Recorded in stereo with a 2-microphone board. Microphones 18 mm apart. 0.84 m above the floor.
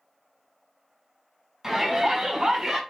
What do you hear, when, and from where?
1.6 s a shout: 30° right (ahead or behind), 5.5 m; by 2.8 s 45° right (ahead or behind), 6 m